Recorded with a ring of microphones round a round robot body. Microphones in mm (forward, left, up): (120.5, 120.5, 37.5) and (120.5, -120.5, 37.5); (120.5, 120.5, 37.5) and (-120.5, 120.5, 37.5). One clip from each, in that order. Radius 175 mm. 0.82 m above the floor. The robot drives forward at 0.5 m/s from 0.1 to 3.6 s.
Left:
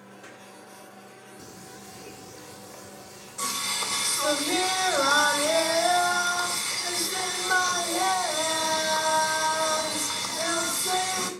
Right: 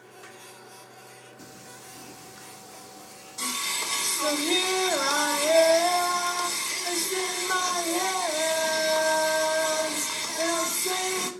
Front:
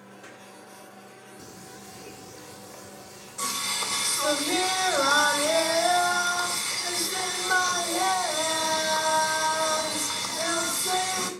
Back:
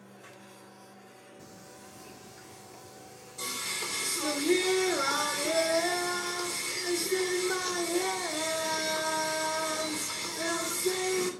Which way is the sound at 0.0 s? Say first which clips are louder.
Even, front 5 dB; 75° right.